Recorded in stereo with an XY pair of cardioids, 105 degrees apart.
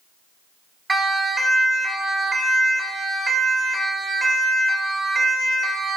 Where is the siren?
25° right, 6.5 m; by 6.0 s 40° right, 4 m.